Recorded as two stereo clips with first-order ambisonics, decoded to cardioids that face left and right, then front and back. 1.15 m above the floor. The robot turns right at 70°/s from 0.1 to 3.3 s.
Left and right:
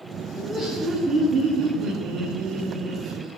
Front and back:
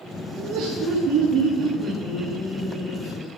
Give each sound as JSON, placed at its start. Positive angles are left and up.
{"t": 0.4, "sound": "laughter", "azimuth_deg": 155, "distance_m": 2.0}